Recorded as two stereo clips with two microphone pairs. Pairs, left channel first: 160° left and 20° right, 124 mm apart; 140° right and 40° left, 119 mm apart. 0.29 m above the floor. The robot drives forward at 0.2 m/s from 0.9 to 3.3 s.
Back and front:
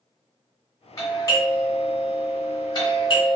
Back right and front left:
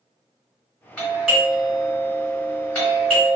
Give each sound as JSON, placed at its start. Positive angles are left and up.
{"t": 1.0, "sound": "a doorbell", "azimuth_deg": 135, "distance_m": 1.7}